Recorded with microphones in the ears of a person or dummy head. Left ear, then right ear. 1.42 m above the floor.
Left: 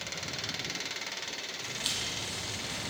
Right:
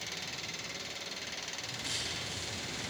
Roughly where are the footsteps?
Left.